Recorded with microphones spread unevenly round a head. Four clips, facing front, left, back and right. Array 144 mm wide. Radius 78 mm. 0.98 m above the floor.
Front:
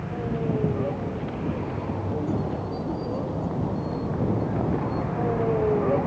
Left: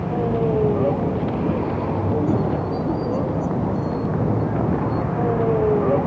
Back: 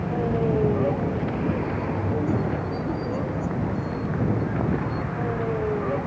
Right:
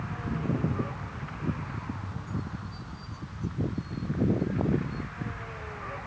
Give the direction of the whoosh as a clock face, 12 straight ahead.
I don't hear a whoosh.